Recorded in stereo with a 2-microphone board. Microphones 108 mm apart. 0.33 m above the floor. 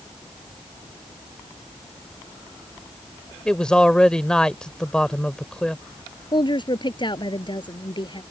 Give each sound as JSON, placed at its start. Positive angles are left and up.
{"t": 3.5, "sound": "a man speaking", "side_deg": 5}
{"t": 6.3, "sound": "a woman speaking", "side_deg": 40}